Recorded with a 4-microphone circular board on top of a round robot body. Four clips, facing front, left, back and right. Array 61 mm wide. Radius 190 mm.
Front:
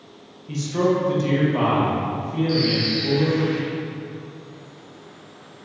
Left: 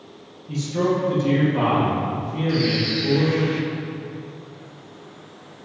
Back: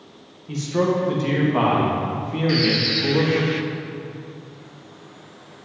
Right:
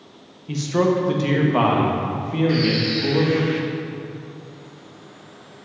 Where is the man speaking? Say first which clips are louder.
Right 3 dB, even; 90° right, 1.9 m; by 3.5 s 135° right, 2 m.